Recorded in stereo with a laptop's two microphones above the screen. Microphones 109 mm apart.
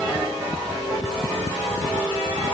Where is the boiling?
No boiling in this recording.